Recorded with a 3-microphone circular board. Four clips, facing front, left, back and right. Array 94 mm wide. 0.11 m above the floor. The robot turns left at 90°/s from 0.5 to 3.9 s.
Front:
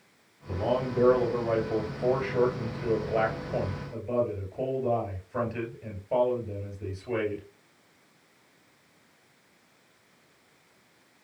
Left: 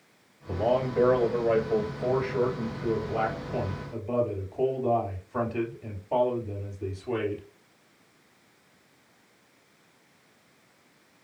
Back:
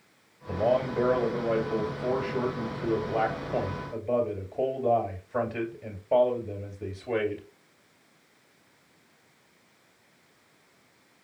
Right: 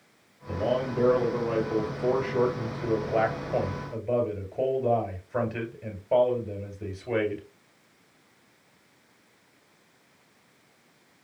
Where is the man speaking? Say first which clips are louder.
Left 2 dB, back 3 dB; straight behind, 2 m; by 7.4 s 125° right, 2 m.